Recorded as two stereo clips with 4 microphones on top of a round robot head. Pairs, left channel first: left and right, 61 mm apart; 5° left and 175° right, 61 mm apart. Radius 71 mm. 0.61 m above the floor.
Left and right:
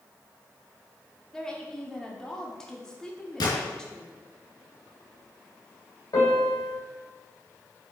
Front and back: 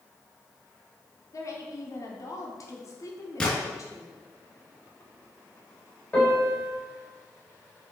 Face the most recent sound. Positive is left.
turn(degrees=70)